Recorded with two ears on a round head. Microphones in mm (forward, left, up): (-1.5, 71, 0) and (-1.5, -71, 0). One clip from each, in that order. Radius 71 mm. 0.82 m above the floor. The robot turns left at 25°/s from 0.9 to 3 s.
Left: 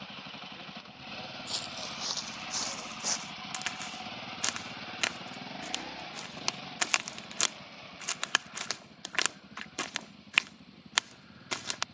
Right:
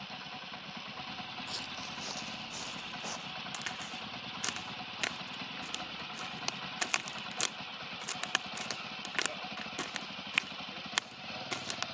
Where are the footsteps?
25° left (ahead or behind); by 3.3 s 65° left (ahead or behind).